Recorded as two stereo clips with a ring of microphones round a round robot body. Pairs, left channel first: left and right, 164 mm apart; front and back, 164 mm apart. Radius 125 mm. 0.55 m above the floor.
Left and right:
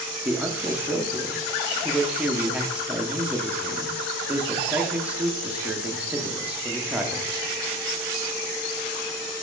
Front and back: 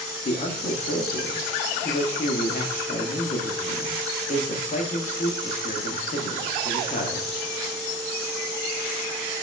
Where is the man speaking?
10° right, 0.8 m.